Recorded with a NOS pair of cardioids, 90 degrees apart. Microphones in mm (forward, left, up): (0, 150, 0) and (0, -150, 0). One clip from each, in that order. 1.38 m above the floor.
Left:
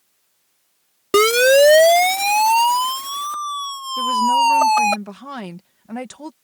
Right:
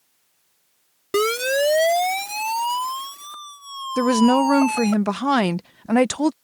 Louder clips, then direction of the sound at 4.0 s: Left 2 dB; 65° right.